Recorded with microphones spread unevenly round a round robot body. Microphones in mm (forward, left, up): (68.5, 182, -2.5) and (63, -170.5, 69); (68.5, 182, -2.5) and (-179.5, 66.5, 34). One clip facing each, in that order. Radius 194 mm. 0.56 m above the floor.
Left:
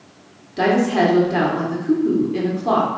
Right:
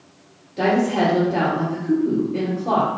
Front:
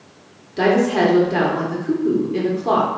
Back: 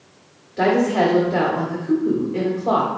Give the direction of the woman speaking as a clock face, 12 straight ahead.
10 o'clock.